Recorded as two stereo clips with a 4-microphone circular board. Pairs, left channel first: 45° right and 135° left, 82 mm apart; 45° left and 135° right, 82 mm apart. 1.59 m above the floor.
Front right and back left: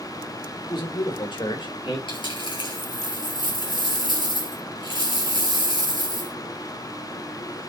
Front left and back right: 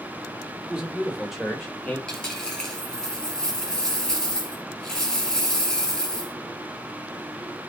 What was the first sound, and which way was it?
A man speaking, 60° right.